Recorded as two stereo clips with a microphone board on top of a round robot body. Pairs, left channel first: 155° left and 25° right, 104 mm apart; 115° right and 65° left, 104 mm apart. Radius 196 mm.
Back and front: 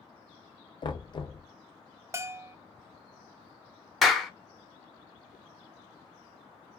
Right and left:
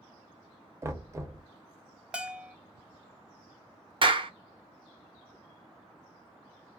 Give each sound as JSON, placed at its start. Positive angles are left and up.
{"t": 0.8, "sound": "knocking", "azimuth_deg": 125, "distance_m": 0.8}
{"t": 2.1, "sound": "a bell", "azimuth_deg": 0, "distance_m": 0.6}
{"t": 4.0, "sound": "a clap", "azimuth_deg": 70, "distance_m": 0.9}